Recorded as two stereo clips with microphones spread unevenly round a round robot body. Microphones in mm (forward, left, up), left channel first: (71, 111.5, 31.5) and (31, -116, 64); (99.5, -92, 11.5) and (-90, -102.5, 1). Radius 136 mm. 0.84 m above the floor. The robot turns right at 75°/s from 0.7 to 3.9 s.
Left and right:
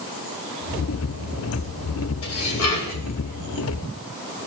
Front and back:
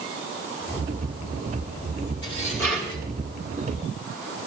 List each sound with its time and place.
2.2 s dishes clattering: 55° left, 3 m; by 3.0 s 115° left, 3 m